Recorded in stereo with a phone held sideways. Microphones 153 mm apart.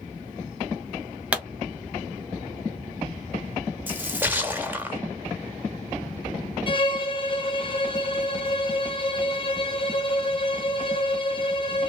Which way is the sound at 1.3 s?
10° right (ahead or behind).